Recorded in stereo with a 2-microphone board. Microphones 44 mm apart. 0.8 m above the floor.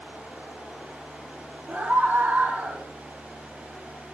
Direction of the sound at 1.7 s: 45° right (ahead or behind).